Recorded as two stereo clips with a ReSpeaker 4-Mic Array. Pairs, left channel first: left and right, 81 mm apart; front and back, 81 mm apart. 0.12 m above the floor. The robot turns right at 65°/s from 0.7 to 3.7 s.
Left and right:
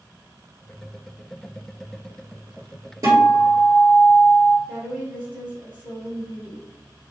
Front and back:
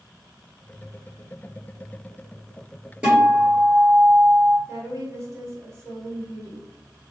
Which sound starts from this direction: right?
A guitar, at 3.0 s.